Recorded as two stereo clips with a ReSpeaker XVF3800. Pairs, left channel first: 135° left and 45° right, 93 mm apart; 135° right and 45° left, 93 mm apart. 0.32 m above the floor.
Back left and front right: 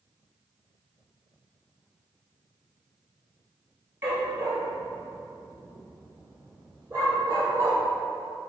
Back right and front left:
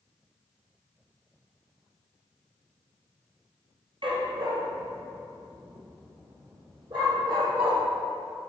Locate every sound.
4.0 s a dog barking: 20° left, 1.8 m; by 7.8 s 15° left, 3.5 m